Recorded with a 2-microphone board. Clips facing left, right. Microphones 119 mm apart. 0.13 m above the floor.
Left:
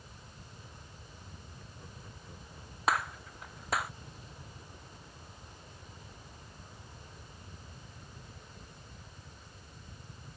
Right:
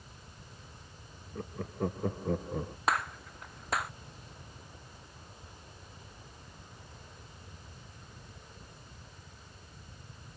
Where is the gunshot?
Centre (ahead or behind).